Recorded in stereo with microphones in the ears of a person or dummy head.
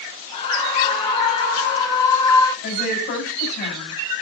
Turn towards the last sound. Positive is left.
turn(degrees=50)  # may be behind; listen again after turning